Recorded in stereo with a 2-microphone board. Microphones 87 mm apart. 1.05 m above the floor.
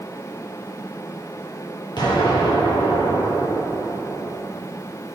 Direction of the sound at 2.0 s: 65° left (ahead or behind).